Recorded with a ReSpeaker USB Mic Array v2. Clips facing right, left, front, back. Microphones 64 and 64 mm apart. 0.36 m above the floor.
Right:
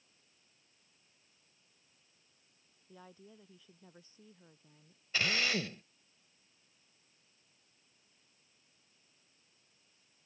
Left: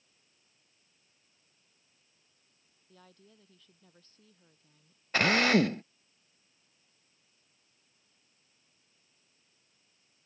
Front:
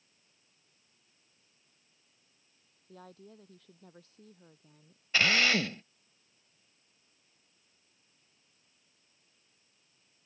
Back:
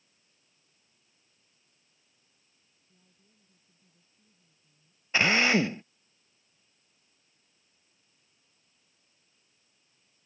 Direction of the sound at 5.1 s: 115° left.